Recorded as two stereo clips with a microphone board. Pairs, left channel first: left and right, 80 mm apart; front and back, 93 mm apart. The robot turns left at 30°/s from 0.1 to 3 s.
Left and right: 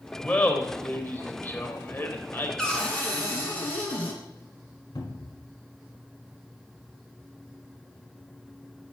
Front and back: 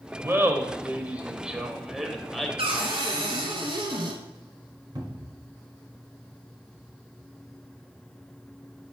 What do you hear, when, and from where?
0.2 s laughter: 150° left, 1.1 m; by 2.5 s 80° left, 1.1 m
2.6 s a cupboard door: 170° left, 1.9 m; by 4.2 s 160° left, 1.9 m
5.0 s a cupboard door: 130° left, 1.5 m